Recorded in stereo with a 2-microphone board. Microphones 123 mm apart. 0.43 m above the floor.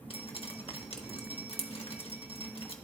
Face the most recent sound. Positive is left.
turn(degrees=50)  # may be behind; listen again after turning